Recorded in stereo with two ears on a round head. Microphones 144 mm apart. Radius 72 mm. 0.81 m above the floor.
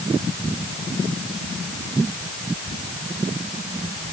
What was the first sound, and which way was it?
Only background noise.